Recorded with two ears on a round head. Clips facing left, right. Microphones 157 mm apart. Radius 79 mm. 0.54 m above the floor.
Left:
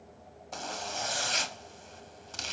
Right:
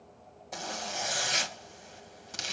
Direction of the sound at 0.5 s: 15° right (ahead or behind).